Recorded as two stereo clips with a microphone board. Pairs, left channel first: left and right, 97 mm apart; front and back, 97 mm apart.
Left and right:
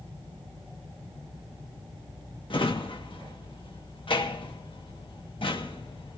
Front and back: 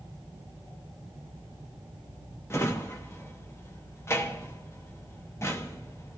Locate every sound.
2.5 s a drawer: 60° left, 1.3 m